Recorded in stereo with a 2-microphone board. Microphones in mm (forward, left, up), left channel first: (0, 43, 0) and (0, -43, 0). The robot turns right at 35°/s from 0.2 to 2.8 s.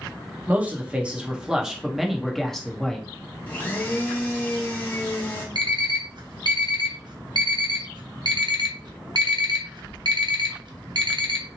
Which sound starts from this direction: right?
An alarm clock, at 5.5 s.